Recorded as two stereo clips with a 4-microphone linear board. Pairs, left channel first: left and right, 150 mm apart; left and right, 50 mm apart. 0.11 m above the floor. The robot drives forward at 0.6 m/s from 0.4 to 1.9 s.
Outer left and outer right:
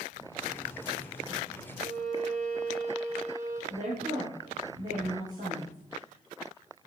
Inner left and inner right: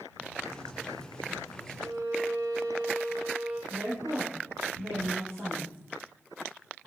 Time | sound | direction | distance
1.8 | a violin | 75° right (ahead or behind) | 4 m
3.7 | a woman speaking | 60° right (ahead or behind) | 4 m